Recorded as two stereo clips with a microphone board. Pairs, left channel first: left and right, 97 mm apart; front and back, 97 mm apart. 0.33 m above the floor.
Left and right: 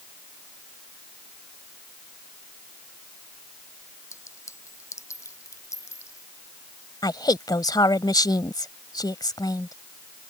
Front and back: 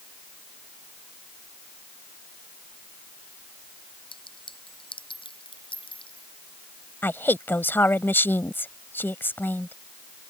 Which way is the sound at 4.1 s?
30° left.